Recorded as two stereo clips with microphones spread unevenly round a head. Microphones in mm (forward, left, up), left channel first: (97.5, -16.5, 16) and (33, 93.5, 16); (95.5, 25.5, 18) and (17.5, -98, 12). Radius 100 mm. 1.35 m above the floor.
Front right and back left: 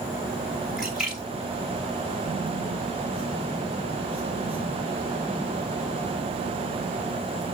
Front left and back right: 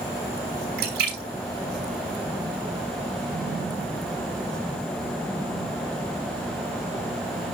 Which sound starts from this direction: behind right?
A splash, at 0.8 s.